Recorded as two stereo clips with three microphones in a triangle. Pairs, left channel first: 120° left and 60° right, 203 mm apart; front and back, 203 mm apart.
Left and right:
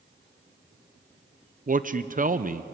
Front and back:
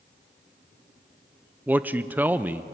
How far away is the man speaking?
About 0.6 m.